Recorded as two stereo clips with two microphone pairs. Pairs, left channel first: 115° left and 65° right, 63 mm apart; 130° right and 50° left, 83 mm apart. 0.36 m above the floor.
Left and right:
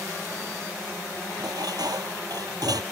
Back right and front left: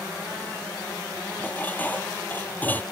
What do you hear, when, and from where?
1.4 s dishes clattering: 60° right